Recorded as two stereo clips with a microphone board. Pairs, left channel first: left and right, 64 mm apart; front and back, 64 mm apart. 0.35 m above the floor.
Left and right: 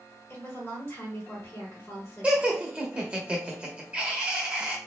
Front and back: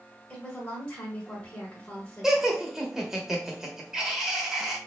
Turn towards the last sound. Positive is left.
turn(degrees=-110)